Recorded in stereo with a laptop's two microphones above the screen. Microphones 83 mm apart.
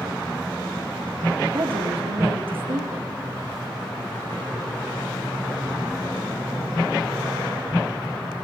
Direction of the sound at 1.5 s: 85° right.